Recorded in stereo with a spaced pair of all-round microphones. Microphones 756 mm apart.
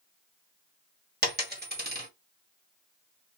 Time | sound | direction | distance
1.2 | a dropped coin | 15° right (ahead or behind) | 1.0 m